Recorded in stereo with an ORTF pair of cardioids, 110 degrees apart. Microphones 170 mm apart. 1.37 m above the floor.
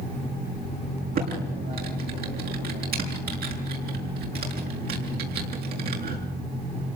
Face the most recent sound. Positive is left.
turn(degrees=-65)